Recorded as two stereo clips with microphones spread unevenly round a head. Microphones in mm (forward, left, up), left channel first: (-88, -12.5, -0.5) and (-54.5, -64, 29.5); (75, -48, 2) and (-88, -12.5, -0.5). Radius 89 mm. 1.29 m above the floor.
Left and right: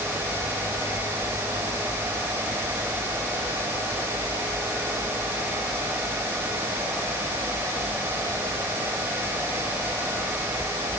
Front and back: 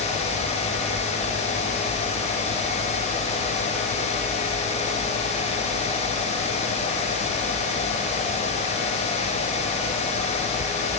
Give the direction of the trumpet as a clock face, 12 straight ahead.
I don't hear a trumpet.